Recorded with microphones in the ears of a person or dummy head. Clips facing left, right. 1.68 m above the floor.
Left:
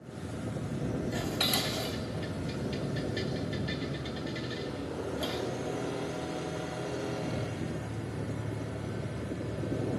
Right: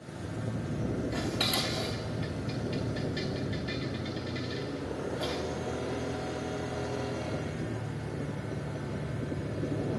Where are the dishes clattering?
Centre (ahead or behind), 3 m.